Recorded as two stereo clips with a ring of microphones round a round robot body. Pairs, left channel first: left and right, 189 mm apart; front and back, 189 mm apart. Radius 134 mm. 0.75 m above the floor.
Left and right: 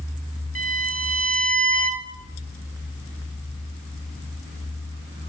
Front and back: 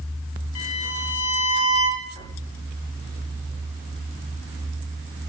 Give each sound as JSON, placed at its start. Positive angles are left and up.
{"t": 0.6, "sound": "a violin", "azimuth_deg": -40, "distance_m": 1.9}